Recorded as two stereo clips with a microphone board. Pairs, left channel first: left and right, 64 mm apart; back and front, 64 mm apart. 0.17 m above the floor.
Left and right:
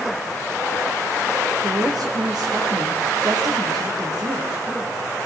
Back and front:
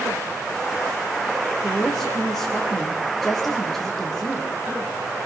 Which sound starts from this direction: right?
A woman speaking, at 1.6 s.